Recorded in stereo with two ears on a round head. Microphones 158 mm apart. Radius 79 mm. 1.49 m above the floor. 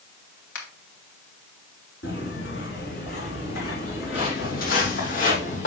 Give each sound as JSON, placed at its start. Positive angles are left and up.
{"t": 0.6, "sound": "a finger snap", "side_deg": 80, "distance_m": 2.5}
{"t": 2.0, "sound": "footsteps", "side_deg": 70, "distance_m": 4.5}